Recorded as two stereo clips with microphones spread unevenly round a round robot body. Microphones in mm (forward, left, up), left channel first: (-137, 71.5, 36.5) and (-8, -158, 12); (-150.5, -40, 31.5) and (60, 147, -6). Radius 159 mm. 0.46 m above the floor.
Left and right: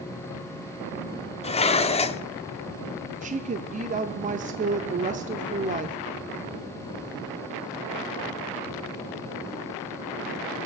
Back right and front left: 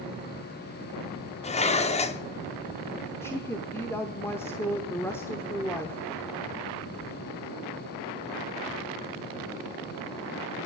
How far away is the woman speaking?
About 0.8 m.